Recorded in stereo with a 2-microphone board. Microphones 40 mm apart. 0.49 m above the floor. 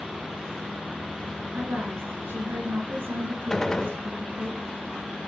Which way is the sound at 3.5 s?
15° left (ahead or behind).